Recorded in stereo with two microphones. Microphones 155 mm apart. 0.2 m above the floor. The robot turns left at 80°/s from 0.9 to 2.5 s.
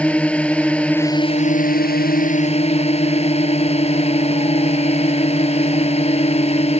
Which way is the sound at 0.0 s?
170° left.